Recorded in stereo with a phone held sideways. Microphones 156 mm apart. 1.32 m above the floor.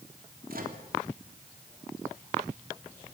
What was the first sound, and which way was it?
A microwave, 70° right (ahead or behind).